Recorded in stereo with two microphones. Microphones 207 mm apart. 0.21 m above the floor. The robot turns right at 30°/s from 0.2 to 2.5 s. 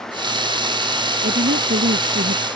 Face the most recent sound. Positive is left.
turn(degrees=-85)